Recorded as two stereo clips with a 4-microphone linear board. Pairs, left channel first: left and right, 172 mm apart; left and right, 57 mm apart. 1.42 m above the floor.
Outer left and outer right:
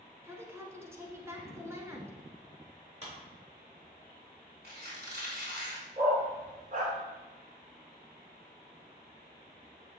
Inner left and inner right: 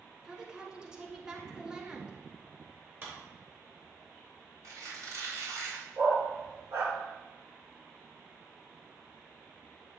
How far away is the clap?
About 3 m.